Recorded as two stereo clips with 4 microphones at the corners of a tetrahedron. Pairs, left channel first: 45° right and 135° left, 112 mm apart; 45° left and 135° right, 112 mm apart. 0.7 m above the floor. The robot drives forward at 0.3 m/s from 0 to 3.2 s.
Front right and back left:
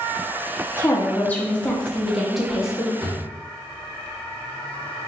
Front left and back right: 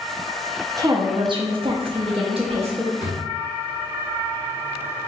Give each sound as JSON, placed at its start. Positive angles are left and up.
{"t": 0.8, "sound": "a woman speaking", "azimuth_deg": -95, "distance_m": 0.7}
{"t": 3.0, "sound": "a drawer", "azimuth_deg": 155, "distance_m": 1.8}